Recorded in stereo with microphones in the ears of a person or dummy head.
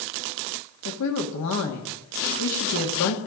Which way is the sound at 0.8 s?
80° left.